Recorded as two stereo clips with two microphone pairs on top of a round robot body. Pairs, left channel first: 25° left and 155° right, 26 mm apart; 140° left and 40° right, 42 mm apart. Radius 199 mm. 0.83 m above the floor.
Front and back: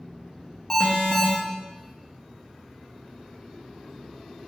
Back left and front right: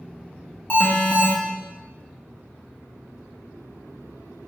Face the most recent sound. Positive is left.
turn(degrees=85)